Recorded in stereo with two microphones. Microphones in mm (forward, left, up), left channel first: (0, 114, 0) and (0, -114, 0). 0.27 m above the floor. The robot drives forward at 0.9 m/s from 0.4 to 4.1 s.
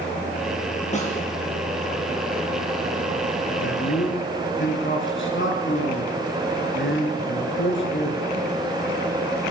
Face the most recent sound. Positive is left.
turn(degrees=60)  # may be behind; listen again after turning